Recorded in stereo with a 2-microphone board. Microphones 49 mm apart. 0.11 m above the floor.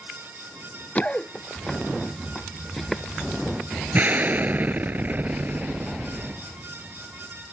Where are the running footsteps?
30° left (ahead or behind); by 3.0 s 5° left (ahead or behind).